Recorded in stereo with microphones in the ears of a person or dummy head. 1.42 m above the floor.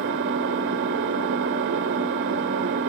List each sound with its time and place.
0.0 s an engine running: 60° right (ahead or behind), 1.9 m